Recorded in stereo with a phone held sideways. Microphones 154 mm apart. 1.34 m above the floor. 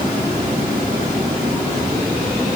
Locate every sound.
Only background noise.